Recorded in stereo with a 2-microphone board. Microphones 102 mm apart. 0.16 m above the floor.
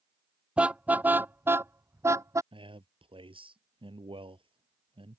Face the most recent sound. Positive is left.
turn(degrees=-60)  # may be behind; listen again after turning